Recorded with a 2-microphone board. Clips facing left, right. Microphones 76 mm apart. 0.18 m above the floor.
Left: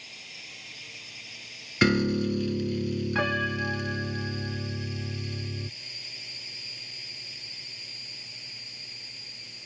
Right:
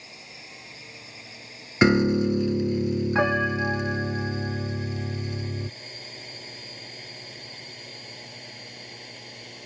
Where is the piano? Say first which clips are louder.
Right 4 dB; 20° right (ahead or behind).